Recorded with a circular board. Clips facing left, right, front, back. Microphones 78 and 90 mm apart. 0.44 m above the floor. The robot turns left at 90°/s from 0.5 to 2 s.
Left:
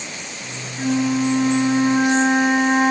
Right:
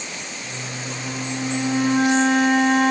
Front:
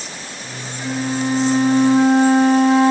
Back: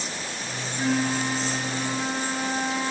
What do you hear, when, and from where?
0.8 s a flute: 120° left, 3.5 m; by 2.9 s 10° left, 3.5 m